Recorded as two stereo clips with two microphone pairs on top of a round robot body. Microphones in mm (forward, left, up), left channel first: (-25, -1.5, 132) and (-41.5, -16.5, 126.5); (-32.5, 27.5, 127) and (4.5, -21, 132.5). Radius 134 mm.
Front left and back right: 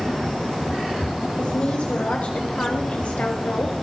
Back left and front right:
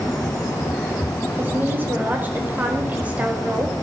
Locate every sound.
1.4 s a woman speaking: 5° left, 6 m; by 3.7 s 20° left, 6 m